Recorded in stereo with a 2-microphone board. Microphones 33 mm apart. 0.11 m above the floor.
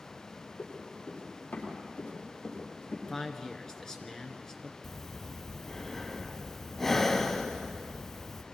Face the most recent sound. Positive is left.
turn(degrees=15)  # may be behind; listen again after turning